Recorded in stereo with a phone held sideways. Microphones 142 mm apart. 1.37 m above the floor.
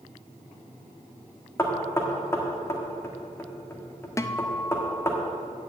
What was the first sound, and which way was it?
Knocking, 20° left (ahead or behind).